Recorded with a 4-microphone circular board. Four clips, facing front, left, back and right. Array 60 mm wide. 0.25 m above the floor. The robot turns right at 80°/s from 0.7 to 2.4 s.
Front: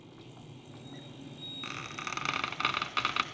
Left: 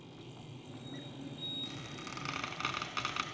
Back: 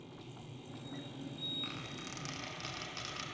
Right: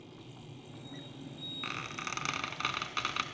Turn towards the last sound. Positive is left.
turn(degrees=-10)